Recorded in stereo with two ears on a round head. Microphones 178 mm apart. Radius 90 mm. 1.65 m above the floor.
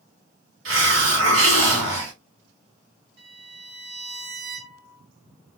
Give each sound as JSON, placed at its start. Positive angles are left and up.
{"t": 0.7, "sound": "a hiss", "side_deg": -70, "distance_m": 2.5}
{"t": 3.2, "sound": "a violin", "side_deg": -60, "distance_m": 1.4}